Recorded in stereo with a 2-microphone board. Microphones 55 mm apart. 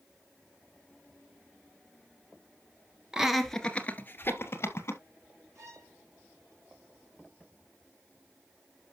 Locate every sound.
3.1 s laughter: 15° right (ahead or behind), 1.4 m; by 5.0 s 55° left (ahead or behind), 3 m
5.5 s a violin: 75° right (ahead or behind), 5.5 m